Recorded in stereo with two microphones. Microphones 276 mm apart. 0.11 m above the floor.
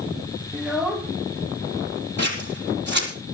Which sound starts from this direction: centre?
A child speaking, at 0.5 s.